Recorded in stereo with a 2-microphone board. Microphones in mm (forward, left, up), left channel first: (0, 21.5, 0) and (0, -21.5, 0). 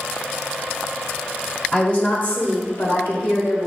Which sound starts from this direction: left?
A woman speaking, at 1.7 s.